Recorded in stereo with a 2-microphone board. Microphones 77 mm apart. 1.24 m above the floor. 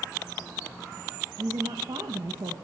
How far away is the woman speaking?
About 0.9 m.